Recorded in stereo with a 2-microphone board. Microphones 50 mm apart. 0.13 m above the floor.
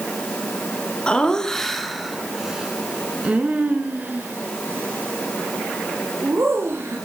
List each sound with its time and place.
1.1 s laughter: 20° left (ahead or behind), 1.5 m; by 7.0 s 60° right (ahead or behind), 3 m